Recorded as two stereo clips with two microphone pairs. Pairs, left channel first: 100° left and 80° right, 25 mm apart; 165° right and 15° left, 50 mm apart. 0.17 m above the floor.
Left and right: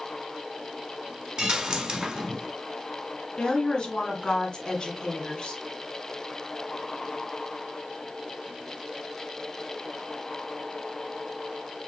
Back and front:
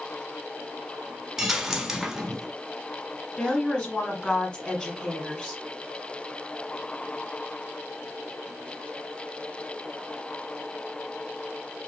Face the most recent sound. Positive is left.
turn(degrees=135)